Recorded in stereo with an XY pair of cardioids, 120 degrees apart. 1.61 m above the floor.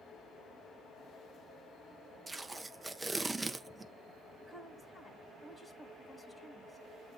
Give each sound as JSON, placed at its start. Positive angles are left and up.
{"t": 2.3, "sound": "tape being pulled", "azimuth_deg": -15, "distance_m": 0.6}
{"t": 4.4, "sound": "a woman speaking", "azimuth_deg": 15, "distance_m": 1.5}